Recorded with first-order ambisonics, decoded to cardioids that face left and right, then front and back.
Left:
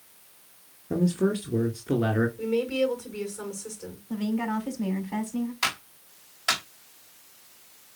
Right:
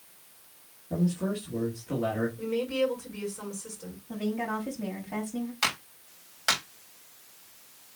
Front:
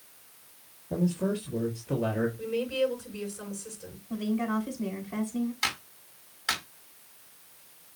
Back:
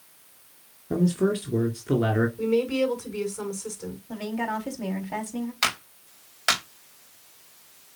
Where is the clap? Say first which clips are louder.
Right 1 dB, back 8 dB; 165° right, 4 m.